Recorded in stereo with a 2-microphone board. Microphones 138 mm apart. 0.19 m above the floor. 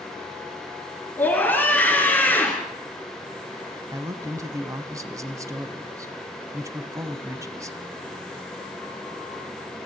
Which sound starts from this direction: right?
A man speaking, at 3.9 s.